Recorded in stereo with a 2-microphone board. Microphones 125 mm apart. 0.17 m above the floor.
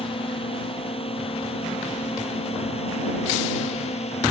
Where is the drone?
45° left (ahead or behind); by 4.3 s 50° left (ahead or behind).